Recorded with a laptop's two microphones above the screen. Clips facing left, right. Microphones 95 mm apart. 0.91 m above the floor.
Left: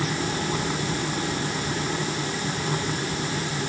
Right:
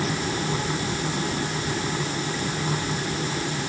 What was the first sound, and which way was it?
Only background noise.